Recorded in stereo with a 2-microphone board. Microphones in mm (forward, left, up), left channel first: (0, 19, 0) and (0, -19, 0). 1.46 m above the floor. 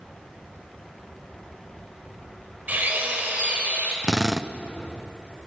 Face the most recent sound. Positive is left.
turn(degrees=-15)  # may be behind; listen again after turning